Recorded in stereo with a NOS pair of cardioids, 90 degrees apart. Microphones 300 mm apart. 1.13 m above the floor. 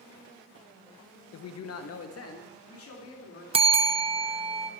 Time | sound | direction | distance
1.3 | a man speaking | 55° left | 0.9 m
3.5 | a bell | 20° right | 0.5 m